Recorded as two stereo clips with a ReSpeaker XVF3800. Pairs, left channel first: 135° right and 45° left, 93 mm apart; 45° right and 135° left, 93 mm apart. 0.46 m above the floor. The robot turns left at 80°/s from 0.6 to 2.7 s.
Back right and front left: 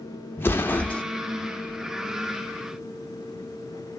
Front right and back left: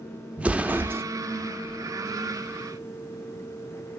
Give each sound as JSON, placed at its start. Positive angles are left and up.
{"t": 0.4, "sound": "an explosion", "azimuth_deg": -170, "distance_m": 0.6}